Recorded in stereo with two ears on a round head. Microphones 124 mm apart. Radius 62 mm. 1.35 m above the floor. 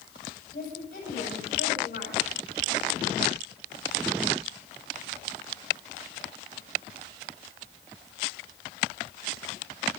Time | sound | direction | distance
0.5 | a woman speaking | 70° left (ahead or behind) | 7.5 m